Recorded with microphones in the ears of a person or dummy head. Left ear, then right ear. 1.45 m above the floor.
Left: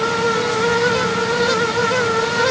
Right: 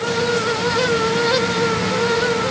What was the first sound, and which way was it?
Only background noise.